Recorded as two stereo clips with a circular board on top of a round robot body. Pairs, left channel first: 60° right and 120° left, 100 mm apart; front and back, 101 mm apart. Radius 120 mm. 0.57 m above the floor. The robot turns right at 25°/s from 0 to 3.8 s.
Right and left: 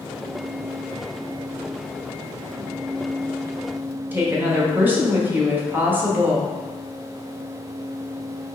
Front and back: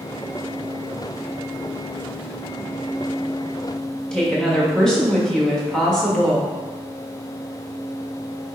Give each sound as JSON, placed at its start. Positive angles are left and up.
{"t": 4.1, "sound": "a woman speaking", "azimuth_deg": 75, "distance_m": 1.3}